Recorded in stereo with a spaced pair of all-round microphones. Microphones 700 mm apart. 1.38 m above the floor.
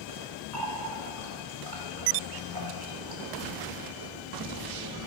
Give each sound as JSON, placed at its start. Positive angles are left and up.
{"t": 0.5, "sound": "a running tap", "side_deg": -30, "distance_m": 2.0}